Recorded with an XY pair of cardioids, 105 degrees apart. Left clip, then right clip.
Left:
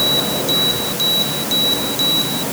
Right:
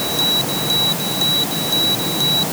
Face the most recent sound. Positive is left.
No sound to turn to.